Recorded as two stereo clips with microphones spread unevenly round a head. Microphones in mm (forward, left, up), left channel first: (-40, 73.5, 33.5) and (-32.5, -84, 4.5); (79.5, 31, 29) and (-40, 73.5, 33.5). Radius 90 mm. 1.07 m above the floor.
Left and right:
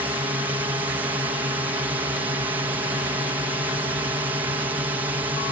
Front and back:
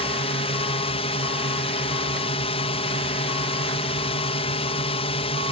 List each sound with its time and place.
0.0 s a drone: 25° right